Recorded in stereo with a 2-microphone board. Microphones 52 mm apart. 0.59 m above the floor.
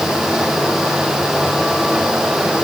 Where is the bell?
I don't hear a bell.